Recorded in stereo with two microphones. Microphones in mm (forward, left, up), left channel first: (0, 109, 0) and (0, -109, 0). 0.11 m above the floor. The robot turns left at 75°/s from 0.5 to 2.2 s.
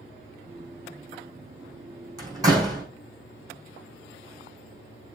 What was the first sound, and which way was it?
A door slam, 20° right (ahead or behind).